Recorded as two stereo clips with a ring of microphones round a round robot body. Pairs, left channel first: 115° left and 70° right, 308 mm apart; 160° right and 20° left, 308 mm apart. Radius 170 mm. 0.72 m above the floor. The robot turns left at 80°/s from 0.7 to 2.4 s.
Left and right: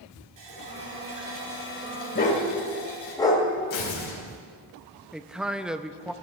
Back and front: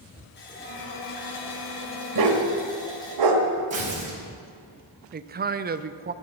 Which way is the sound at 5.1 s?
20° left.